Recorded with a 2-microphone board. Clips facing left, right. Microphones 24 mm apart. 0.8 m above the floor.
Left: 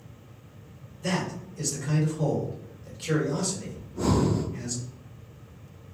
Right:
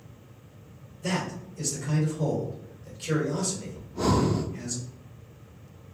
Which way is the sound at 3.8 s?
45° right (ahead or behind).